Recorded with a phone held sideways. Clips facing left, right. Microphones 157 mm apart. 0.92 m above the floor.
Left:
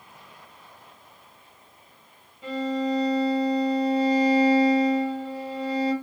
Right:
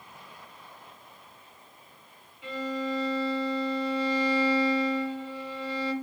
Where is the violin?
35° left (ahead or behind), 0.9 m.